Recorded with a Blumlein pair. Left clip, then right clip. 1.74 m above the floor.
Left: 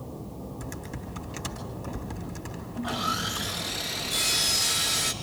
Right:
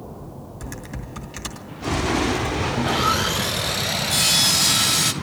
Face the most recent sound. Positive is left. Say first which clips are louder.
# right 7 dB
turn(degrees=-35)